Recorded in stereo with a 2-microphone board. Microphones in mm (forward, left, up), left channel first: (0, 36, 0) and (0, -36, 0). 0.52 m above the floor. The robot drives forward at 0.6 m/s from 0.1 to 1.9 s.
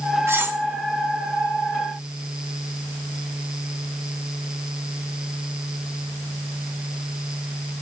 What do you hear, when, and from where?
0.3 s cutlery clinking: 35° right (ahead or behind), 0.8 m; by 0.6 s 30° right (ahead or behind), 1.0 m